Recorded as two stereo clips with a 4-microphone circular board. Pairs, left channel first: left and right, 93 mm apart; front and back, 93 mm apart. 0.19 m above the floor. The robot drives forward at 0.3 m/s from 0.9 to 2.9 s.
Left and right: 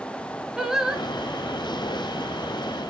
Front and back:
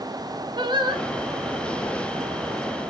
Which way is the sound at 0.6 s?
175° right.